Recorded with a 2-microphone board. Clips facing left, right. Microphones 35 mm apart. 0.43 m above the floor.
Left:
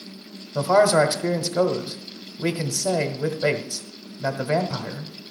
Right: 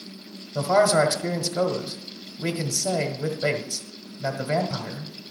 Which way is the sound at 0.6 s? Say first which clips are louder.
Left 2 dB; 15° left (ahead or behind).